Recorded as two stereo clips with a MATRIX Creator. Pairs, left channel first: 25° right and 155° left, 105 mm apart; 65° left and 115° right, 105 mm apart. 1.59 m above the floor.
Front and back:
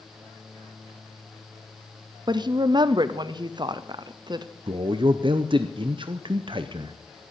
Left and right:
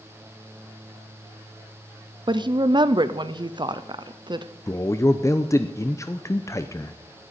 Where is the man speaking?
125° left, 0.6 m.